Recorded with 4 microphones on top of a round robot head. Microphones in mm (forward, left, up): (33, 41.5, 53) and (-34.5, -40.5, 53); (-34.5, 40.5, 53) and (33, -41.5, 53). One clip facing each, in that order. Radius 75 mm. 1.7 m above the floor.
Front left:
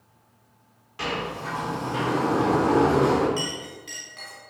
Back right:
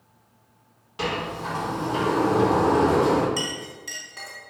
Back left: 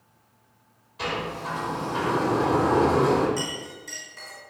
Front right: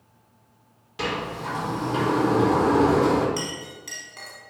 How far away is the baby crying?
I don't hear a baby crying.